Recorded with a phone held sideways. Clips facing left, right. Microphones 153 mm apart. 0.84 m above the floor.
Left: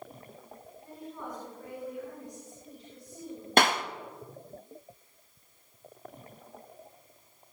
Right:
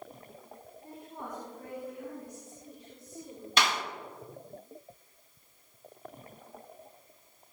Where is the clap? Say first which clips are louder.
Left 6 dB; 50° left (ahead or behind), 0.9 m.